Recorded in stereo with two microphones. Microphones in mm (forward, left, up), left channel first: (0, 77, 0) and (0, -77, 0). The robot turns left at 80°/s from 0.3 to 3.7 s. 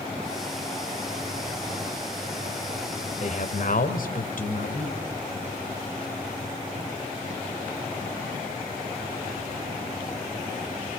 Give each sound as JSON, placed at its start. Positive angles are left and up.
{"t": 3.2, "sound": "a man speaking", "azimuth_deg": 125, "distance_m": 2.0}